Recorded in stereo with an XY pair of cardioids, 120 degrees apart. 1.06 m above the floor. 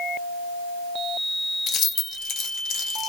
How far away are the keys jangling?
About 0.8 m.